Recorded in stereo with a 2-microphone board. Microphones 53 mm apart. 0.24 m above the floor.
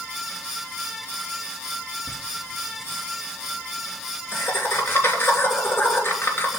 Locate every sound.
2.1 s laughter: 45° left (ahead or behind), 3 m